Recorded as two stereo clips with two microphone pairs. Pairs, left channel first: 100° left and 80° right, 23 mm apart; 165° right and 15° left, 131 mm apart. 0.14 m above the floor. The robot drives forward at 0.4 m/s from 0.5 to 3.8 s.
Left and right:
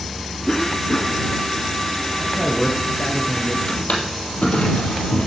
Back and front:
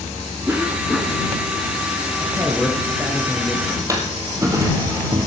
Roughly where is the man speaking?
Left.